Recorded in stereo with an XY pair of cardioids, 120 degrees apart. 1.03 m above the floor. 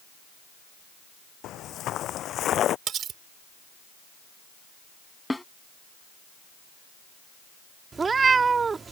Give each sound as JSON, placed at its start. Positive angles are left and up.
{"t": 1.4, "sound": "footsteps", "azimuth_deg": 70}
{"t": 2.9, "sound": "cutlery clinking", "azimuth_deg": -55}
{"t": 5.3, "sound": "a snare drum", "azimuth_deg": 10}
{"t": 7.9, "sound": "a cat meowing", "azimuth_deg": -30}